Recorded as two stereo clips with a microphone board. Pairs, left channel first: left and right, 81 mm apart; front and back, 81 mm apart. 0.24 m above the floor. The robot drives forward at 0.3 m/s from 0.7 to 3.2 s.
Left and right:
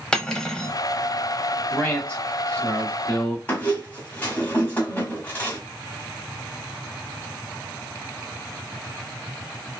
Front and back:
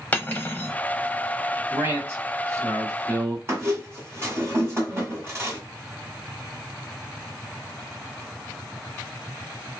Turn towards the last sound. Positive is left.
turn(degrees=145)